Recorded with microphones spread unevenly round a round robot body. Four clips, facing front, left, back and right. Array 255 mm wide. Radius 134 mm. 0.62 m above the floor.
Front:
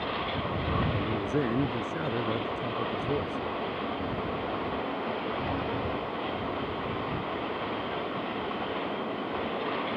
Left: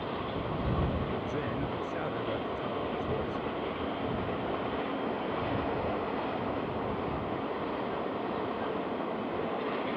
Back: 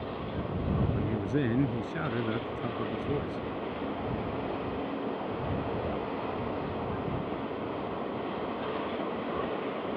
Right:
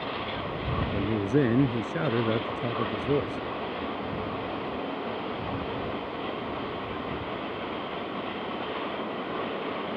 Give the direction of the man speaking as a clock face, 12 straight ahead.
4 o'clock.